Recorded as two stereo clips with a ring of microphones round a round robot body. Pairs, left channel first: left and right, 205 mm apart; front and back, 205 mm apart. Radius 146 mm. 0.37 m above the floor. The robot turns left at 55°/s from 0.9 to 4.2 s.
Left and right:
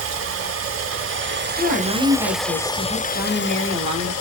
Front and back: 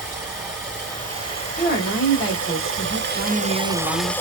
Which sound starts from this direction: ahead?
A woman speaking, at 1.6 s.